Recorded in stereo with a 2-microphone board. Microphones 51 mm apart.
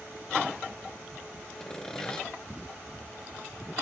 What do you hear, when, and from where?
1.6 s sawing: 15° left (ahead or behind), 1.7 m